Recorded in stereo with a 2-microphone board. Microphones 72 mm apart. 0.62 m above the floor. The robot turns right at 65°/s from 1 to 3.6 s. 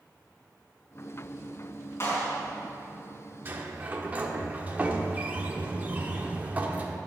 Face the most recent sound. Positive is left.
turn(degrees=-20)  # may be behind; listen again after turning